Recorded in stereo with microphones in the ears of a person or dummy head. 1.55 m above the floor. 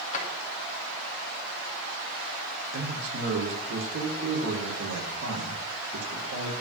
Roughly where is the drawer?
Left.